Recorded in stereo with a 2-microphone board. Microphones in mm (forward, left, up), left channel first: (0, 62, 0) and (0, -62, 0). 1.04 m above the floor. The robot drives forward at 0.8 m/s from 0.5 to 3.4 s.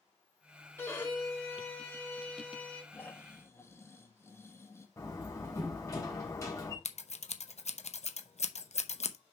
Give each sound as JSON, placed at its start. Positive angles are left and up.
{"t": 0.8, "sound": "a violin", "side_deg": 25, "distance_m": 1.9}
{"t": 2.9, "sound": "snoring", "side_deg": 15, "distance_m": 1.7}
{"t": 5.0, "sound": "a door slam", "side_deg": 25, "distance_m": 3.5}
{"t": 6.8, "sound": "scissors", "side_deg": 65, "distance_m": 0.7}